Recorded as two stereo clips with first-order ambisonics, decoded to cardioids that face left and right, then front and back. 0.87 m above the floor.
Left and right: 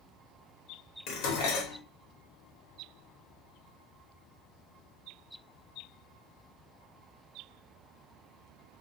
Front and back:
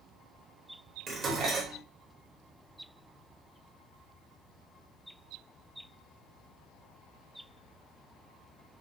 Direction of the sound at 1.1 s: 115° left.